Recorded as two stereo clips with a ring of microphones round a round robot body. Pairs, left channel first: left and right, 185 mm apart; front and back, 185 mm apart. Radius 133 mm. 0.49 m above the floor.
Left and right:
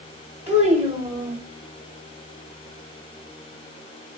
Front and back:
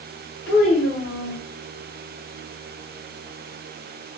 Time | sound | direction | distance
0.5 | a child speaking | 10° right | 1.6 m